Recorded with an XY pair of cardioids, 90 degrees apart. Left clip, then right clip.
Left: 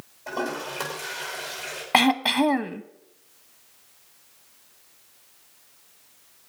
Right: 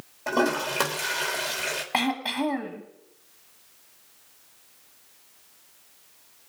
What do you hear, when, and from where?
0.3 s a toilet flushing: 70° right, 2.5 m
1.9 s throat clearing: 55° left, 0.9 m